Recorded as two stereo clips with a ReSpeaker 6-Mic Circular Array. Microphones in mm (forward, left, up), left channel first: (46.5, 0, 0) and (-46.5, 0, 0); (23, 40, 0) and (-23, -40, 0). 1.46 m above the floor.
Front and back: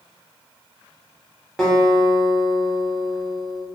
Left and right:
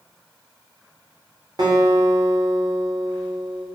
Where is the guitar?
80° right, 0.7 m.